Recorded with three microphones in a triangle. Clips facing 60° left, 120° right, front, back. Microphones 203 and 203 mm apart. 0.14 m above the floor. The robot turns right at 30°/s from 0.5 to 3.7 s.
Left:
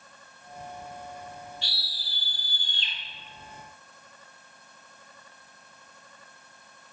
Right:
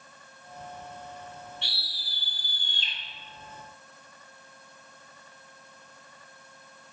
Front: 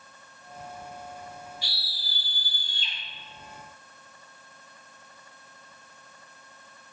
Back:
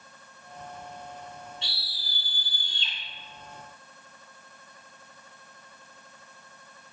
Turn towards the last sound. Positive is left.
turn(degrees=-55)